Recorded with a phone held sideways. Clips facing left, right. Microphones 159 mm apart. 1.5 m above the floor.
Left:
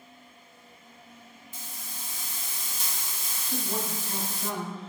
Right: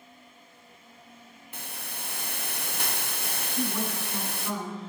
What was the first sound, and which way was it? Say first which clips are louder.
A hiss: right 5 dB; 65° right (ahead or behind).